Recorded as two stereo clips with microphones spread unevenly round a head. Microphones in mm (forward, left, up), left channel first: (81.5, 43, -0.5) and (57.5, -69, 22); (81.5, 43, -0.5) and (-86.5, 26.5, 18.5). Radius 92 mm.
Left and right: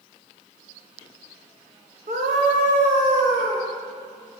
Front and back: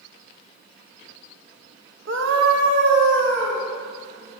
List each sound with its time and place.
2.1 s a scream: 145° right, 1.2 m; by 3.6 s 140° right, 3 m